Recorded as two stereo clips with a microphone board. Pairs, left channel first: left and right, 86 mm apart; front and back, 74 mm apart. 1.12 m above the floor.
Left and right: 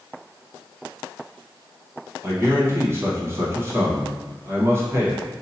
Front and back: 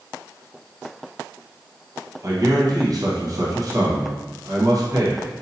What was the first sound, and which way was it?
A man speaking, 150° right.